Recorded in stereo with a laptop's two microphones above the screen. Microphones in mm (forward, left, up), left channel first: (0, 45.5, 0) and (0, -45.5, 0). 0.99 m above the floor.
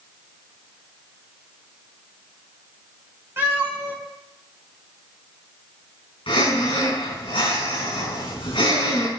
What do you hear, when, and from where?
3.4 s a cat meowing: 30° right (ahead or behind), 4 m
6.3 s breathing: 70° left (ahead or behind), 5 m